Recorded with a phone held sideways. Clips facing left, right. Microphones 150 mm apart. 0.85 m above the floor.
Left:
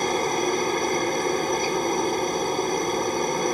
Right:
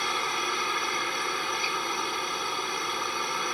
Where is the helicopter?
40° left (ahead or behind).